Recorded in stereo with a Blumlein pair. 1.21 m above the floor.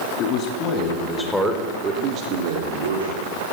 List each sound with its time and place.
0.2 s a man speaking: 40° left, 3 m; by 3.2 s 75° right, 3 m